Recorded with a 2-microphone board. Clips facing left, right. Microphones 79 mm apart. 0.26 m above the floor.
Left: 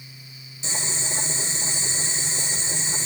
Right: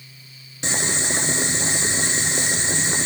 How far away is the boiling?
About 1.6 m.